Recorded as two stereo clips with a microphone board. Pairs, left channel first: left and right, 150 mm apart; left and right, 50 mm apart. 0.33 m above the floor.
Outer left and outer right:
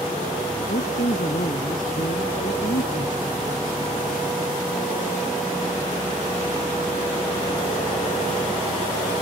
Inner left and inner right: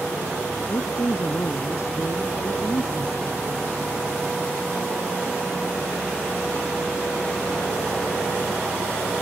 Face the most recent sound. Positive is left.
turn(degrees=70)  # may be behind; listen again after turning